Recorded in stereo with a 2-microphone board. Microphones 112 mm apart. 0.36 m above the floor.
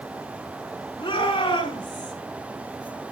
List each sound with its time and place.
1.0 s a shout: 45° left (ahead or behind), 5 m; by 2.1 s 40° left (ahead or behind), 4 m